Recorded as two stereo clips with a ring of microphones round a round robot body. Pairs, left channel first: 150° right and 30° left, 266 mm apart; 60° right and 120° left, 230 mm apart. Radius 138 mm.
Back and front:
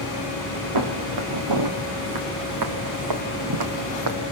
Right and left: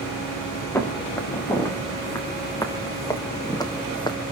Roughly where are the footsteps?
Ahead.